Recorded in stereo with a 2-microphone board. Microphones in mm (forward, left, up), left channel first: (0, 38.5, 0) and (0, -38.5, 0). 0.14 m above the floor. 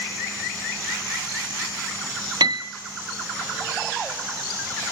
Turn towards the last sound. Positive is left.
turn(degrees=-80)